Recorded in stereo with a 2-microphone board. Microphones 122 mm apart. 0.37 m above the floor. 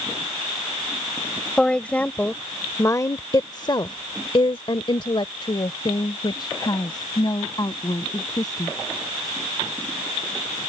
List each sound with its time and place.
1.6 s a woman speaking: 5° left (ahead or behind); by 8.8 s 35° left (ahead or behind)